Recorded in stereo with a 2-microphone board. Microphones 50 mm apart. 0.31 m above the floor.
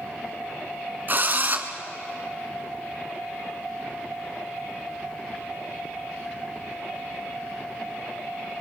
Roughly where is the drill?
Right.